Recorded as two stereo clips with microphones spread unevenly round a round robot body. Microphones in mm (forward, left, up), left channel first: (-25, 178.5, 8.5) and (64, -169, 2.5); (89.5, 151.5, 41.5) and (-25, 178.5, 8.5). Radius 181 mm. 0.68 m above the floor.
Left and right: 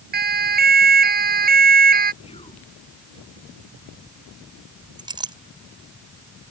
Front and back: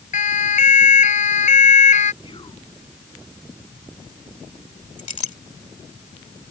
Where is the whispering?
30° left.